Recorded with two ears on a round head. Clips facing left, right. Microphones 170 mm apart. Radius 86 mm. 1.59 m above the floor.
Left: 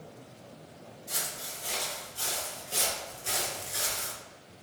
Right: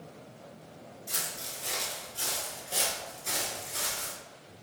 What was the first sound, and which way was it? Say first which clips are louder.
Footsteps: left 2 dB; 35° right (ahead or behind).